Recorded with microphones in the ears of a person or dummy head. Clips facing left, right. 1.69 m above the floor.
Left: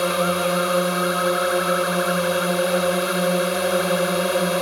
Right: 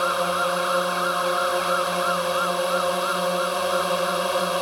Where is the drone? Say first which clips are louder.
Left 4 dB; 30° left (ahead or behind).